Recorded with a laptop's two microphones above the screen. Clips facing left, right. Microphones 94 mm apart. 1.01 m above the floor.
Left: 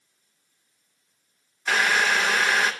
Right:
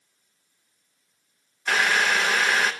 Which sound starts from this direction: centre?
Boiling, at 1.7 s.